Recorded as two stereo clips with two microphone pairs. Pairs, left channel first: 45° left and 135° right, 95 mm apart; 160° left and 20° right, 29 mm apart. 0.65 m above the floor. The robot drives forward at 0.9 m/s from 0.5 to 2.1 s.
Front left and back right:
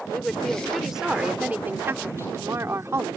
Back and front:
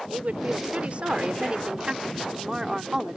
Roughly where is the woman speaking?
Ahead right.